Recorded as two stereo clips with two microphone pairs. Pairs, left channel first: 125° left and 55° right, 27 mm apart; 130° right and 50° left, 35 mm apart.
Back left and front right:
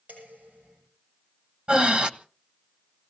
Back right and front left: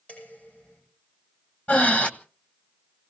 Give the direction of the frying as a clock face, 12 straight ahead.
I don't hear frying.